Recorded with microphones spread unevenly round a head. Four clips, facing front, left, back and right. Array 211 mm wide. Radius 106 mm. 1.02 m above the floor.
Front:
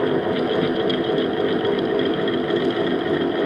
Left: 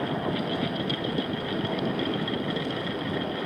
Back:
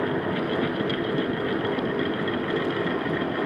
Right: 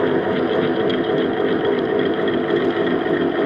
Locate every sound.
0.0 s a fan: 60° right